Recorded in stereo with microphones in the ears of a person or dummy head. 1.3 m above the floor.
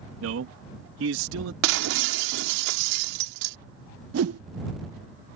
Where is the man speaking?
75° right (ahead or behind).